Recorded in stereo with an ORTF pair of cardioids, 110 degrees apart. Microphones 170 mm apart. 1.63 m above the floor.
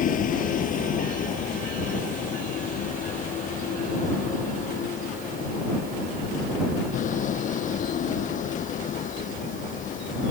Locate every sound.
0.0 s a vehicle: 55° left; by 10.3 s 50° left